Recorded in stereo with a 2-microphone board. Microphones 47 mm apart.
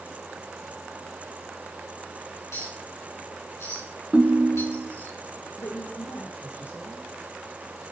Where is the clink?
85° left, 8 m.